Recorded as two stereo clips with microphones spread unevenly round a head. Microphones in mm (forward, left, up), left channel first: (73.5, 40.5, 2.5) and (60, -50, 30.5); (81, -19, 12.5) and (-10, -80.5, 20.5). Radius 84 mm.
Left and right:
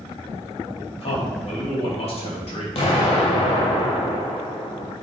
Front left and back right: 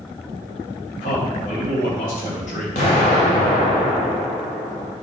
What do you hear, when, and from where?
1.0 s a man speaking: 75° left, 3 m
2.8 s an explosion: 65° left, 2.5 m